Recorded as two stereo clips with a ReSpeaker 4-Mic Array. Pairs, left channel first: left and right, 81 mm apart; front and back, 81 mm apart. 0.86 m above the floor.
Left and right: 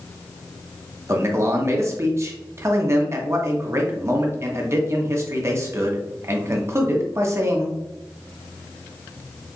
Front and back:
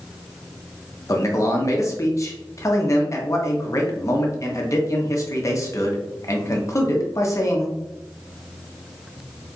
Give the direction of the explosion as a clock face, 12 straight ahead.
No explosion in this recording.